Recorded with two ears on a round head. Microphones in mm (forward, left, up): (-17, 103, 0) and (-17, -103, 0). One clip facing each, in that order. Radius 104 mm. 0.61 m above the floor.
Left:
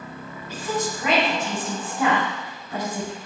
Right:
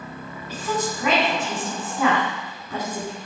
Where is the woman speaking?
75° right (ahead or behind), 4 m.